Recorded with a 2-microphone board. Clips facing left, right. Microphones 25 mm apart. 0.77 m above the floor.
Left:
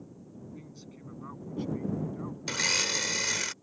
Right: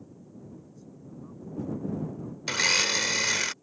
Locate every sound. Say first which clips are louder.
0.5 s a man speaking: left 1 dB; 75° left (ahead or behind); by 2.4 s 80° left
2.5 s a blender: right 4 dB; 20° right (ahead or behind)